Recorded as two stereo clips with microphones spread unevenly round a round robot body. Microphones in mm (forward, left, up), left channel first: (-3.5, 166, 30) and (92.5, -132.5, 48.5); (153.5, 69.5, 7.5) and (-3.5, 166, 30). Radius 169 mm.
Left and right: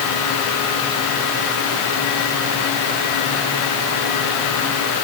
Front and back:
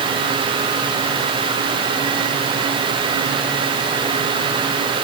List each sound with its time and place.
Only background noise.